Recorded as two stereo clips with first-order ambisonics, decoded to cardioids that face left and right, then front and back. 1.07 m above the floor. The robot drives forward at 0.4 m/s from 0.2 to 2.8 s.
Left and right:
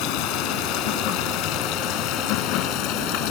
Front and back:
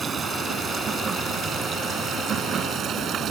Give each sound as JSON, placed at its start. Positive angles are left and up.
{"t": 0.0, "sound": "running water", "azimuth_deg": 110}